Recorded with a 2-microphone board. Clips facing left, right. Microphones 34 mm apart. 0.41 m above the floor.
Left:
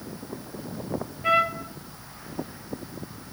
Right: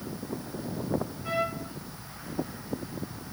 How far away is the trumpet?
About 1.7 m.